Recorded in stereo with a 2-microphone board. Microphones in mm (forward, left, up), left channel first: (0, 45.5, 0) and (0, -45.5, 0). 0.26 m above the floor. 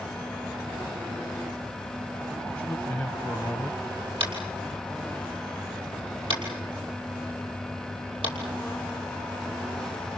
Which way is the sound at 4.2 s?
70° right (ahead or behind).